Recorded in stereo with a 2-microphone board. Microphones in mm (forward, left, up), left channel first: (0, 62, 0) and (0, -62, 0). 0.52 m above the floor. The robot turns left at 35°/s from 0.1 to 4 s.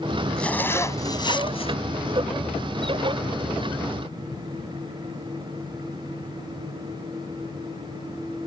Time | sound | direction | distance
0.4 | a zipper | 175° left | ?